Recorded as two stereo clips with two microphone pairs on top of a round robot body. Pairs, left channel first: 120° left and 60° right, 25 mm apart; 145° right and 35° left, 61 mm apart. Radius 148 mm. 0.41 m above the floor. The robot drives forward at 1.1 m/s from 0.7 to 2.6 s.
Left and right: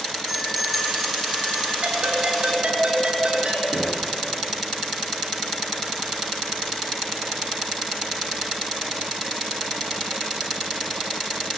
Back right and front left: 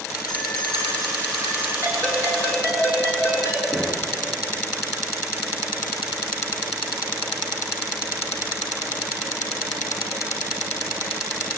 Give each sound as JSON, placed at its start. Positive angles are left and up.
{"t": 0.3, "sound": "a bell", "azimuth_deg": -150, "distance_m": 5.0}
{"t": 1.8, "sound": "a ringtone", "azimuth_deg": -95, "distance_m": 5.0}
{"t": 3.7, "sound": "knocking", "azimuth_deg": -70, "distance_m": 7.0}